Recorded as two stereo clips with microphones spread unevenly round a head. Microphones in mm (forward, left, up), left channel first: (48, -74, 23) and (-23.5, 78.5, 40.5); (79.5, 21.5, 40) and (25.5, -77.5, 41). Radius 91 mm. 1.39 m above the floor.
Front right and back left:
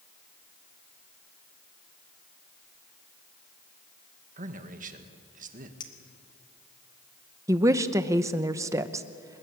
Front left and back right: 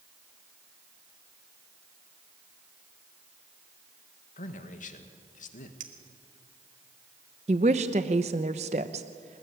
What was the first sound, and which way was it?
A man speaking, 70° left.